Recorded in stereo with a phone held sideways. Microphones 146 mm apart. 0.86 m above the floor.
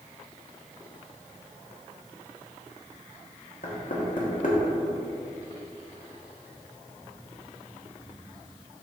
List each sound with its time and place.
3.6 s knocking: 70° left (ahead or behind), 1.4 m